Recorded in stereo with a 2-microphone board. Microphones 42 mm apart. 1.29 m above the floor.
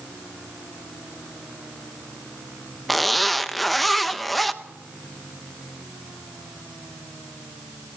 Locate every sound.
2.9 s a zipper: centre (ahead or behind), 0.8 m